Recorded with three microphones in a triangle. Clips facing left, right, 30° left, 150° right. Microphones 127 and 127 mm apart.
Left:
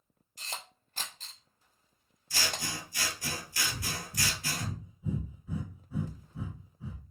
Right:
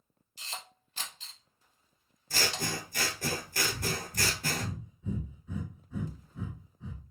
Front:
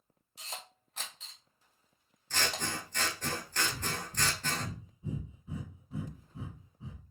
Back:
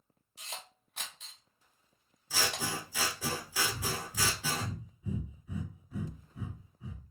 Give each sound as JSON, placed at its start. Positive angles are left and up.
{"t": 0.4, "sound": "a camera shutter", "azimuth_deg": 120, "distance_m": 1.4}
{"t": 2.3, "sound": "scissors", "azimuth_deg": -65, "distance_m": 0.5}
{"t": 3.7, "sound": "breathing", "azimuth_deg": 20, "distance_m": 1.5}